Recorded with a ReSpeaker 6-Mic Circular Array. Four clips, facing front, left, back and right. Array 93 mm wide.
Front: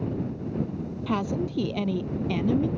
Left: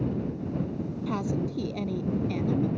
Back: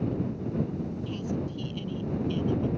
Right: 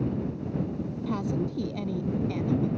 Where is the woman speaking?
5° left; by 2.7 s straight ahead.